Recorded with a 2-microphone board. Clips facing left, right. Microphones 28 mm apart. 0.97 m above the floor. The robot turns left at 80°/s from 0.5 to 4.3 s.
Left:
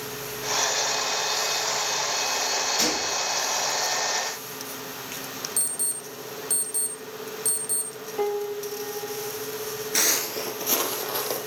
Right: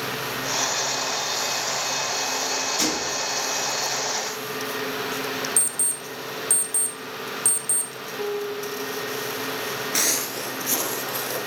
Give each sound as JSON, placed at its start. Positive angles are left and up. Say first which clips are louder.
{"t": 2.8, "sound": "a gunshot", "louder": "even", "azimuth_deg": 10, "distance_m": 5.5}
{"t": 5.6, "sound": "an alarm clock", "louder": "right 4 dB", "side_deg": 30, "distance_m": 0.9}
{"t": 8.2, "sound": "a piano", "louder": "left 1 dB", "side_deg": 60, "distance_m": 0.7}
{"t": 9.9, "sound": "footsteps", "louder": "left 2 dB", "side_deg": 0, "distance_m": 1.0}